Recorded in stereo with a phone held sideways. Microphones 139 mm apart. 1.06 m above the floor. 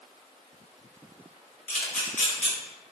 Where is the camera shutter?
5° left (ahead or behind), 1.3 m.